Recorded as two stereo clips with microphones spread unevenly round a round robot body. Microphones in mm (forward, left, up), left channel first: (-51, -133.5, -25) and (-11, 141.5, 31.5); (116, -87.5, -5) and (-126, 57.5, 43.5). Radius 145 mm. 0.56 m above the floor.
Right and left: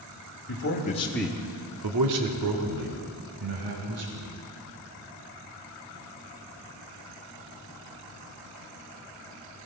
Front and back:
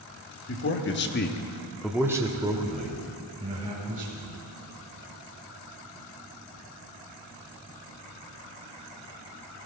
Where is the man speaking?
65° right, 1.6 m; by 4.3 s 85° left, 4 m.